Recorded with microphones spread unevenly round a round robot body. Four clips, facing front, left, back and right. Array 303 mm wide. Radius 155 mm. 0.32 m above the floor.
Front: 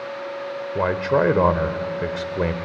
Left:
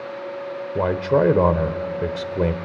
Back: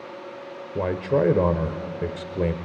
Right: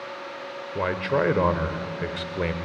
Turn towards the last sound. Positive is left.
turn(degrees=95)